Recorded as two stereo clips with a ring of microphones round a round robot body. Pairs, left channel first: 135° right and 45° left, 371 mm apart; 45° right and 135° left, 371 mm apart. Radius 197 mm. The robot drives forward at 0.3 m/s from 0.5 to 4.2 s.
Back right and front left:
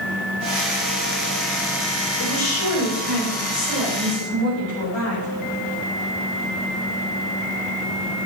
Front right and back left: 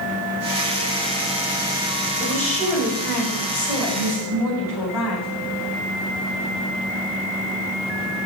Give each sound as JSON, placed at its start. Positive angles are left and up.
{"t": 2.2, "sound": "a woman speaking", "azimuth_deg": -135, "distance_m": 5.0}